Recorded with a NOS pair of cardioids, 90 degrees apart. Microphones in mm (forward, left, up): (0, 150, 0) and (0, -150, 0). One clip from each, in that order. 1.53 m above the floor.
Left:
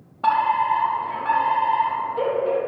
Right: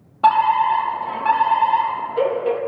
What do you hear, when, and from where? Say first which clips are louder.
0.2 s a fire alarm: right 4 dB; 45° right, 3.5 m